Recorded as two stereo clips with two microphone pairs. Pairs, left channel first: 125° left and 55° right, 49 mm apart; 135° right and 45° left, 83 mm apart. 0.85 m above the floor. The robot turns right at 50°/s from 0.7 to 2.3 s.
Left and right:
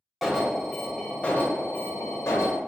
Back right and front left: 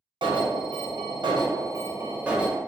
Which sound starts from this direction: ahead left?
An alarm, at 0.2 s.